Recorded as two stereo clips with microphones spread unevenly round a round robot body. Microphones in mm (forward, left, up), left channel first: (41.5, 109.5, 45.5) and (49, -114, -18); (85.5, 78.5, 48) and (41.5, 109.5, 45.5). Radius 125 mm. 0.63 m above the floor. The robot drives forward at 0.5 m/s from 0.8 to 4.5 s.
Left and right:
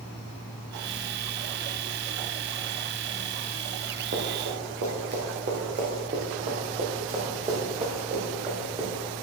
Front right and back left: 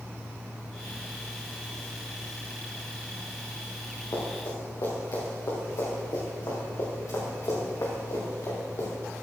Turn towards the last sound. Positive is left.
turn(degrees=-20)